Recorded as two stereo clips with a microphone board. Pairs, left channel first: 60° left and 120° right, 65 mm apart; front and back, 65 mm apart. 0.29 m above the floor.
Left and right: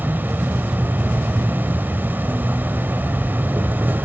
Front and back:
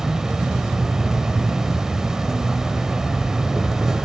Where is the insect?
105° right, 0.8 m.